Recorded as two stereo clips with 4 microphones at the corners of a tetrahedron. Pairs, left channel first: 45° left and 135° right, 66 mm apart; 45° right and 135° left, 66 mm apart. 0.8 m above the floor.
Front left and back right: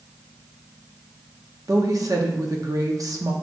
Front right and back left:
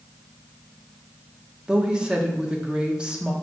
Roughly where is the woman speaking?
Behind right.